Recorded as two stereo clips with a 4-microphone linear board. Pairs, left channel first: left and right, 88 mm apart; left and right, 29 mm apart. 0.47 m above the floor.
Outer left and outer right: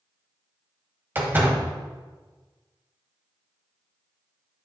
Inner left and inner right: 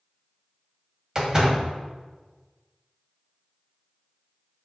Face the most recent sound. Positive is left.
turn(degrees=-25)  # may be behind; listen again after turning